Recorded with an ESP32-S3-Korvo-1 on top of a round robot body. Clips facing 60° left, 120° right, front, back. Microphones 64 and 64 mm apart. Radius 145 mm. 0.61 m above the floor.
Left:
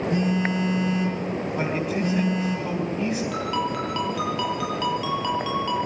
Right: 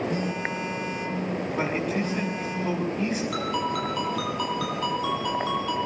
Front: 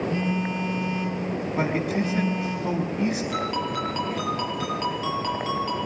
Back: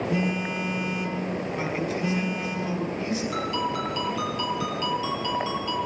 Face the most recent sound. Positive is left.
turn(degrees=40)